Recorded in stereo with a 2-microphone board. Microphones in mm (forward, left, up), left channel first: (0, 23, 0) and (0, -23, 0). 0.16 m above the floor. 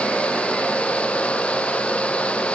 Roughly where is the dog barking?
No dog barking in this recording.